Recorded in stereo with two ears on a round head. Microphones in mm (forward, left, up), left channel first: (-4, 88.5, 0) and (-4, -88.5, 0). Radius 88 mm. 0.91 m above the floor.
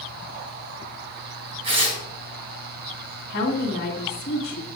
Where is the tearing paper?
30° right (ahead or behind), 3.5 m.